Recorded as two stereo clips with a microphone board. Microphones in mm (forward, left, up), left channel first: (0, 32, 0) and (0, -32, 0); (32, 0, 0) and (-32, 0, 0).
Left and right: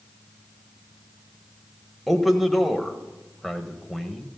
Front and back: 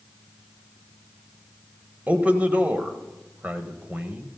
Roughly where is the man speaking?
Behind.